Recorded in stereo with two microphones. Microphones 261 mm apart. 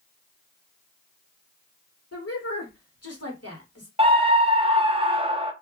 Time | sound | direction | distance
2.1 | a woman speaking | 70° left (ahead or behind) | 1.9 m
4.0 | a scream | 20° right (ahead or behind) | 0.6 m